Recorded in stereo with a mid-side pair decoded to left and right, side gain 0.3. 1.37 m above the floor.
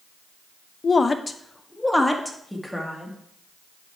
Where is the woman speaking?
50° left, 0.9 m; by 3.2 s 5° right, 2.5 m.